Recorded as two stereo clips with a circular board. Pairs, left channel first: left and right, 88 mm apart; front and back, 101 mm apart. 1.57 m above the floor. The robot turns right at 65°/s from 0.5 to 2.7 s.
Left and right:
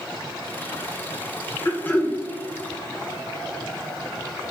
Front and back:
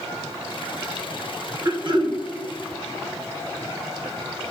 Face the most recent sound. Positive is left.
turn(degrees=-150)